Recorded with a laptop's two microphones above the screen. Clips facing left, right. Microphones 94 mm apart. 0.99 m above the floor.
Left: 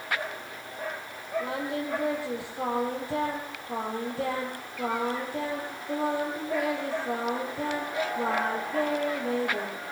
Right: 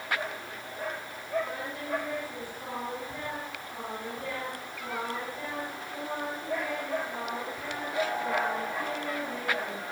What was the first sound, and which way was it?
Singing, 85° left.